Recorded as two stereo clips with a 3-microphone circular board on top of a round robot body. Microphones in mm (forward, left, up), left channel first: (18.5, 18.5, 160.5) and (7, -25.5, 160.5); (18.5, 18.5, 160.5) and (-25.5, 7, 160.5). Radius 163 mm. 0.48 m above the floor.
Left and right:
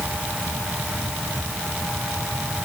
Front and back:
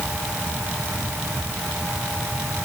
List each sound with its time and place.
Only background noise.